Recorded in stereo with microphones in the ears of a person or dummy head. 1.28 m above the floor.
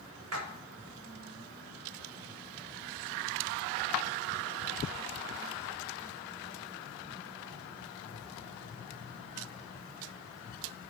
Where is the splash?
80° right, 1.4 m.